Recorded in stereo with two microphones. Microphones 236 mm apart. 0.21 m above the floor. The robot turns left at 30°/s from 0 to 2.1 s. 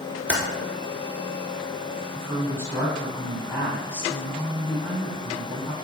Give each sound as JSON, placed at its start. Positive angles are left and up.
{"t": 0.3, "sound": "typing on a keyboard", "side_deg": -5, "distance_m": 1.0}
{"t": 2.1, "sound": "a woman speaking", "side_deg": 10, "distance_m": 1.4}